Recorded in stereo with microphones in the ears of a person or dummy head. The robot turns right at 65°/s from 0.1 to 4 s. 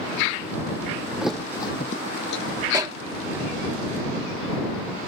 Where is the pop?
15° right (ahead or behind); by 3.0 s 30° right (ahead or behind).